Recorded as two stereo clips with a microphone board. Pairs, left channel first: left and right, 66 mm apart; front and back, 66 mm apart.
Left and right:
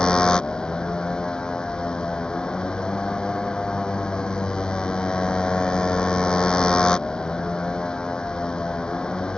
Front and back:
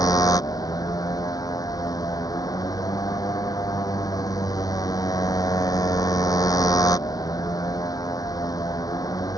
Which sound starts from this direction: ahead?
A motorcycle, at 0.0 s.